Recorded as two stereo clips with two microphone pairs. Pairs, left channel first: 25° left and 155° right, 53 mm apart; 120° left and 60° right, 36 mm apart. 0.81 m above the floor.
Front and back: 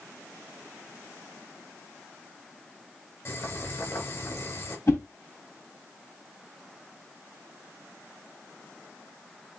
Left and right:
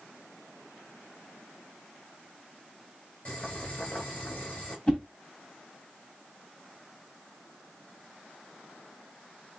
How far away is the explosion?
No explosion in this recording.